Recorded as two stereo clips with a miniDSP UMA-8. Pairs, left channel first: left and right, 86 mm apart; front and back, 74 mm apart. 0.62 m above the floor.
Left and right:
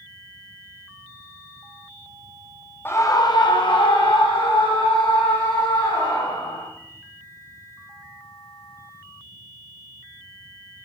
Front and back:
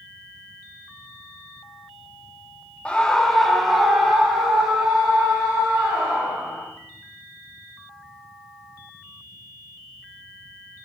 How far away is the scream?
About 0.7 m.